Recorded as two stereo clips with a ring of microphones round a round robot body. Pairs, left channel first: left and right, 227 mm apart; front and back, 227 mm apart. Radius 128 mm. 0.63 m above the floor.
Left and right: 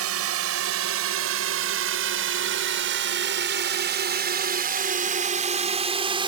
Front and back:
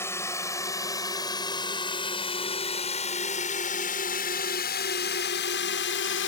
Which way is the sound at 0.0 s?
80° right.